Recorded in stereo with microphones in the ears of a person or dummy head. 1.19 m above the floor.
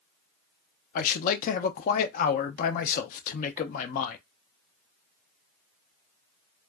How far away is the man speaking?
About 0.5 m.